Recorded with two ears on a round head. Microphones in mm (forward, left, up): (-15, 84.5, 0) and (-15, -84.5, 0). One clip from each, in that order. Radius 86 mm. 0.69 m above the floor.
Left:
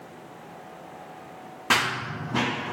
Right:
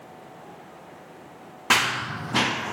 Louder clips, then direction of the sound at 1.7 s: Right 2 dB; 15° right (ahead or behind).